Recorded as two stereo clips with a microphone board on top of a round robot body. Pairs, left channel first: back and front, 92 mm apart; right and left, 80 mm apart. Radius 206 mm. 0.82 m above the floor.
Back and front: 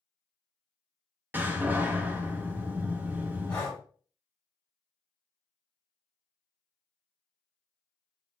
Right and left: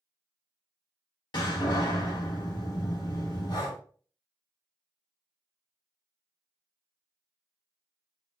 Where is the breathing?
110° right, 2.5 m.